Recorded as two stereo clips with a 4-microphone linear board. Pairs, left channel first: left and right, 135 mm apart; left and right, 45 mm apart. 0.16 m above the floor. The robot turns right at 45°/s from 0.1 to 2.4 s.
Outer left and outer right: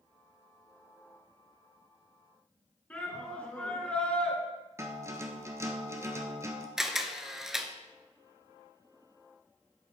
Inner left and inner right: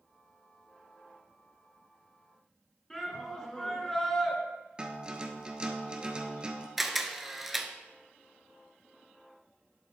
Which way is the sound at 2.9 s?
10° left (ahead or behind).